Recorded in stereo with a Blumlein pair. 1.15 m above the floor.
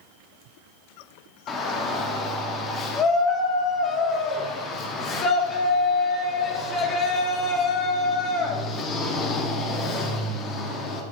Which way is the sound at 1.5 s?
25° left.